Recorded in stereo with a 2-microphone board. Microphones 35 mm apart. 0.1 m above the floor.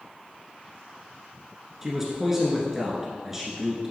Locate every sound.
1.8 s a man speaking: 10° right (ahead or behind), 1.2 m